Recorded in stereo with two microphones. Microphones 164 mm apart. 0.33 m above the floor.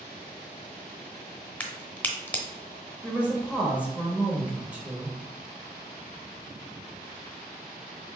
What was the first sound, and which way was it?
A crack, 10° left (ahead or behind).